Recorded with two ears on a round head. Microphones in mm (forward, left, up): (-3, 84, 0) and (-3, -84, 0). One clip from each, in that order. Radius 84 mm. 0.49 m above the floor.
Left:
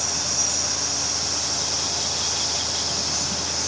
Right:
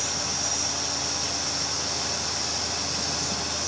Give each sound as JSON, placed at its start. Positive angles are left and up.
{"t": 0.0, "sound": "an insect", "side_deg": 55, "distance_m": 6.0}